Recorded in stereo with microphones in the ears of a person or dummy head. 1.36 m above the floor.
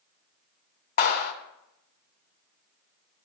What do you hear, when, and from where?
1.0 s a clap: 55° left (ahead or behind), 3 m